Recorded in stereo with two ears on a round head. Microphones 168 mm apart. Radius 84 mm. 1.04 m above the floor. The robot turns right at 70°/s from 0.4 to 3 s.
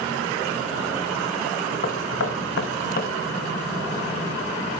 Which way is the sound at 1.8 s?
50° left (ahead or behind).